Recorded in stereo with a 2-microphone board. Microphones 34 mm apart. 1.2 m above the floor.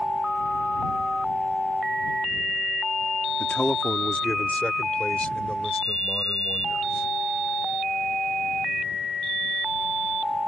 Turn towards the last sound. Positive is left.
turn(degrees=30)  # may be behind; listen again after turning